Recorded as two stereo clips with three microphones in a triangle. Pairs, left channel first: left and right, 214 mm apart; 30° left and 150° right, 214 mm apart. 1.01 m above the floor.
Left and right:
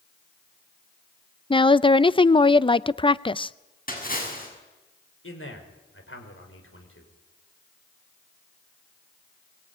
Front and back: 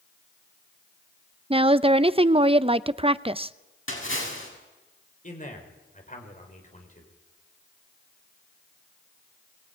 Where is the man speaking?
80° left, 4.5 m.